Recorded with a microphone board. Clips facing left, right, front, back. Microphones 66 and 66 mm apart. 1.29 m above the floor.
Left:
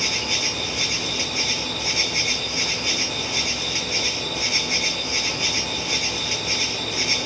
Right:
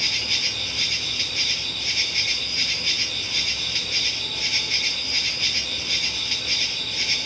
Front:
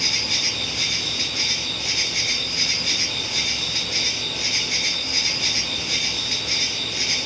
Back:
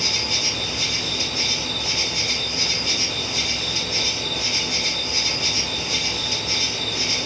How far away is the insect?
About 3 m.